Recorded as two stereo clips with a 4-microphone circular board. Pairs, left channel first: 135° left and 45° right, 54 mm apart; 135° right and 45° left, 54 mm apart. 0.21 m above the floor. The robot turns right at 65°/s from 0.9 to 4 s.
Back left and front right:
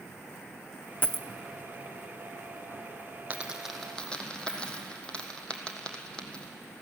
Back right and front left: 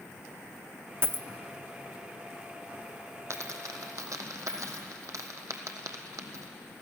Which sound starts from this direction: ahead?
A dropped coin, at 3.3 s.